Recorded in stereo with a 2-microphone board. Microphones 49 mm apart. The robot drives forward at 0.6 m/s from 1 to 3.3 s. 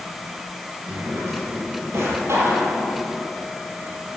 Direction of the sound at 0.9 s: 75° right (ahead or behind).